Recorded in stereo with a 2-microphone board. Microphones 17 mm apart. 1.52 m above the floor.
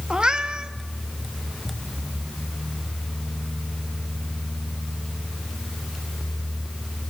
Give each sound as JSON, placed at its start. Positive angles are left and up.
{"t": 0.1, "sound": "a cat meowing", "side_deg": -45, "distance_m": 1.1}